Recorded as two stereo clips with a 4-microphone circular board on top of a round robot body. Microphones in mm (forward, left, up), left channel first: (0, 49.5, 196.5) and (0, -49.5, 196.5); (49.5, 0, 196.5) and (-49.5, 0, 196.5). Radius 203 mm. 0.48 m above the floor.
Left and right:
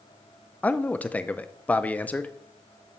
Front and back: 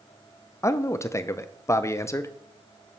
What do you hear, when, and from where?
0.6 s a man speaking: 30° left, 0.8 m